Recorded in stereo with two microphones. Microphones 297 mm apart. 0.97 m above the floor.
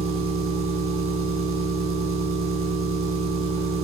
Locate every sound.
0.0 s an engine running: 45° right (ahead or behind), 7.5 m